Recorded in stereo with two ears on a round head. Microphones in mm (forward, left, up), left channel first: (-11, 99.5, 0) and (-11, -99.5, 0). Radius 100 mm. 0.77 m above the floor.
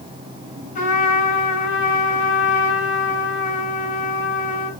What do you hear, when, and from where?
0.8 s a trumpet: 35° left (ahead or behind), 5 m